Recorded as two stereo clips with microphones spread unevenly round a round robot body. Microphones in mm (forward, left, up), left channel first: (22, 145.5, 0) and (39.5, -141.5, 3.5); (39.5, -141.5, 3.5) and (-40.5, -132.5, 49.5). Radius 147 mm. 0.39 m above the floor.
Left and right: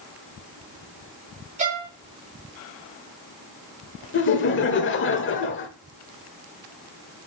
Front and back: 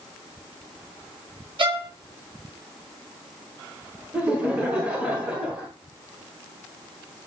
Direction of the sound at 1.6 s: 150° right.